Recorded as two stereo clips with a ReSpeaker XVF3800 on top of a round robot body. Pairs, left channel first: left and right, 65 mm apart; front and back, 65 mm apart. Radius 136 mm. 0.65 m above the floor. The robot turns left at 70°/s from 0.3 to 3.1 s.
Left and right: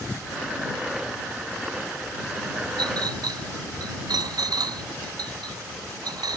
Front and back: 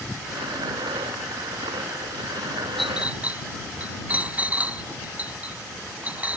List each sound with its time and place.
2.8 s a clink: 90° right; by 6.4 s 110° right